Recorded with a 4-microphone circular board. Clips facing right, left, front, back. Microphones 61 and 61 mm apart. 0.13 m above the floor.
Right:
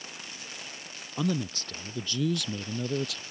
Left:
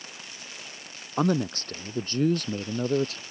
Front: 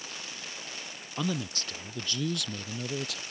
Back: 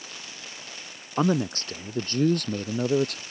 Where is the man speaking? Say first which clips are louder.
Left 5 dB, back 9 dB; 130° left; by 3.2 s 140° left.